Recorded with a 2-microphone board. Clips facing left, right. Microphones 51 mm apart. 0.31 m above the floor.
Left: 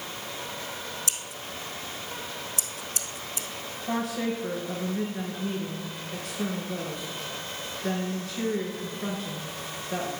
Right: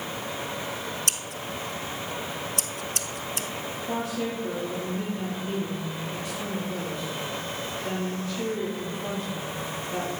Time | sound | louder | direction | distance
1.1 | scissors | right 4 dB | 60° right (ahead or behind) | 0.6 m
3.9 | a woman speaking | left 2 dB | 70° left (ahead or behind) | 4.5 m